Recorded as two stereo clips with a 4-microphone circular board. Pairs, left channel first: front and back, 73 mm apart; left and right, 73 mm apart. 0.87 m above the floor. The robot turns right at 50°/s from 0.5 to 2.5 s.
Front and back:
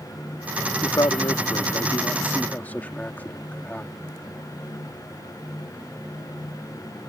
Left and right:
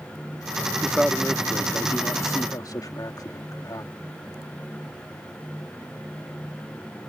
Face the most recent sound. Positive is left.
turn(degrees=65)